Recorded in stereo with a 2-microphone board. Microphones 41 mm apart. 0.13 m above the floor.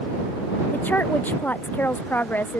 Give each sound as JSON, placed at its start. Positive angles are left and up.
{"t": 0.7, "sound": "a woman speaking", "side_deg": 50}